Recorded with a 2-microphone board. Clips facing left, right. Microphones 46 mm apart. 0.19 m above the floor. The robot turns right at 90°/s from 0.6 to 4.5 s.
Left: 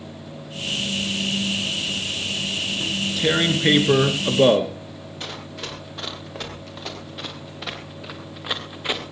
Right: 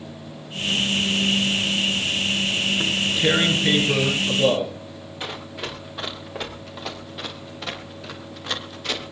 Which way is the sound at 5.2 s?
15° right (ahead or behind).